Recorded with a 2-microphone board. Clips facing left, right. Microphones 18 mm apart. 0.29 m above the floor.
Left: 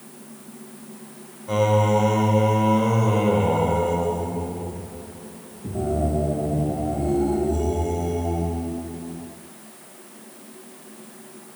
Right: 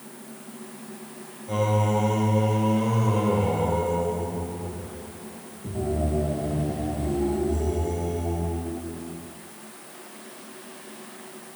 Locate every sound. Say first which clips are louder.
1.5 s singing: left 5 dB; 35° left (ahead or behind), 0.5 m